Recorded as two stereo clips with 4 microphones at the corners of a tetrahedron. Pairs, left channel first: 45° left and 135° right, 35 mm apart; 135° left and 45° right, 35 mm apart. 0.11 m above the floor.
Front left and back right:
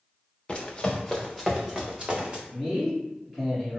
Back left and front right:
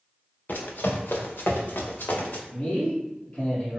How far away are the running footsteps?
About 1.0 m.